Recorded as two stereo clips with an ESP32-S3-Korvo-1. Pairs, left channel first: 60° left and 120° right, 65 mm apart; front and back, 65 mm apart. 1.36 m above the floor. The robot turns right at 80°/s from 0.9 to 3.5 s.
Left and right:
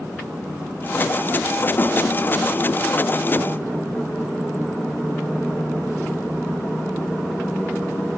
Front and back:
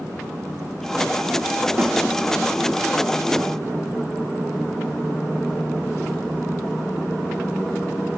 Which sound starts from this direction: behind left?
A snare drum, at 1.8 s.